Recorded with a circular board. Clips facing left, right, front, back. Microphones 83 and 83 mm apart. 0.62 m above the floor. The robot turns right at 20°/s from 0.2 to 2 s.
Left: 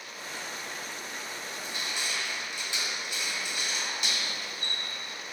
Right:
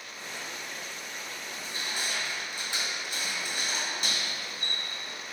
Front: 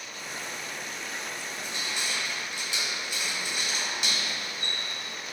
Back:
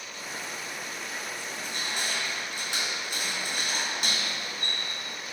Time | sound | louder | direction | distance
1.5 | crushing | right 1 dB, back 1 dB | 145° right | 1.4 m